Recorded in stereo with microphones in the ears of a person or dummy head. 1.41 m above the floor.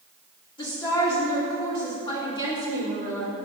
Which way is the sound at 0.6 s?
25° left (ahead or behind).